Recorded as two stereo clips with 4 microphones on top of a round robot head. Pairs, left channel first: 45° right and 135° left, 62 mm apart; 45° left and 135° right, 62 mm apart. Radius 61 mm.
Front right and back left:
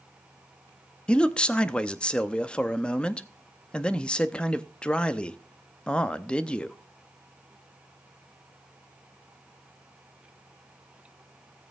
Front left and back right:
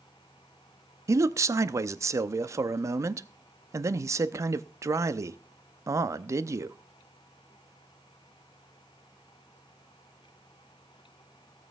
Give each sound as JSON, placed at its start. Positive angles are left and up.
{"t": 1.1, "sound": "a man speaking", "azimuth_deg": -115, "distance_m": 0.7}